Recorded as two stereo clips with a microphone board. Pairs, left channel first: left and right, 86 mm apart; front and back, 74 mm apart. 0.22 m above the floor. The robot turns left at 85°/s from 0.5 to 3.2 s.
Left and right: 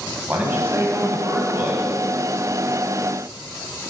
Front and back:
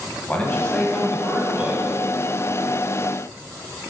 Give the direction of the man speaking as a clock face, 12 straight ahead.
2 o'clock.